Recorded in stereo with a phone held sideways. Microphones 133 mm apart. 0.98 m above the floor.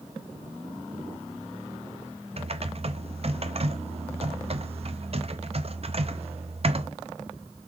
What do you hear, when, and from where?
2.4 s typing on a keyboard: 50° right (ahead or behind), 0.5 m